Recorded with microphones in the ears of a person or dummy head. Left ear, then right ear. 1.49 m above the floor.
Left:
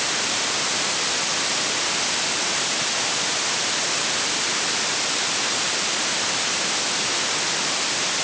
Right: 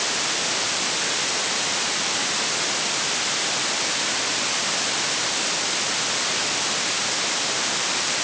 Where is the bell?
No bell in this recording.